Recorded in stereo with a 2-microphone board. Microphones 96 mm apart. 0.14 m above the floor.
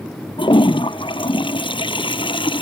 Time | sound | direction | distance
0.4 | a toilet flushing | 65° left (ahead or behind) | ?